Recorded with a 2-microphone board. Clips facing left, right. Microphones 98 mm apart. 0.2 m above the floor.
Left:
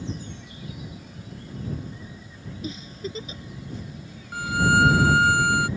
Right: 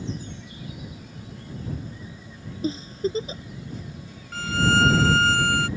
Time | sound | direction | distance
2.6 | a giggle | 35° right (ahead or behind) | ?
4.3 | a violin | 15° left (ahead or behind) | ?